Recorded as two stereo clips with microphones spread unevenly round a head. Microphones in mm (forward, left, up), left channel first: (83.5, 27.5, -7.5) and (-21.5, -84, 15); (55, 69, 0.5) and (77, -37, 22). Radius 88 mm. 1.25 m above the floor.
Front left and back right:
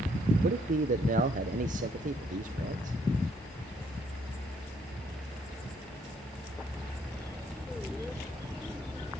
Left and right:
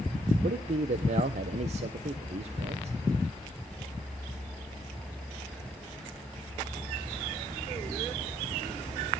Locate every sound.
0.4 s a man speaking: 105° right, 0.8 m